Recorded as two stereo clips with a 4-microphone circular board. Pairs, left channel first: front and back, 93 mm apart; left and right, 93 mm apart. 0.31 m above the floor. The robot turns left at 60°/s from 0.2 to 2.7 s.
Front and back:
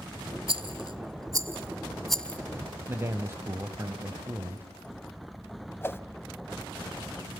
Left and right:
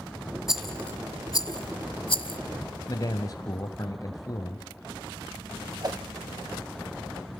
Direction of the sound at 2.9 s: 125° left.